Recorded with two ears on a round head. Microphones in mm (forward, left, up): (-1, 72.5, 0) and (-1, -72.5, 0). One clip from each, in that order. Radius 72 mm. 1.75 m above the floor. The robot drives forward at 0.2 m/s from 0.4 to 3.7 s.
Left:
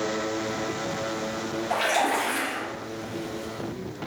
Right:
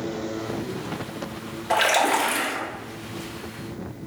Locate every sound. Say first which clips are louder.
1.7 s a splash: right 4 dB; 35° right (ahead or behind), 0.8 m; by 2.6 s 30° right (ahead or behind), 0.9 m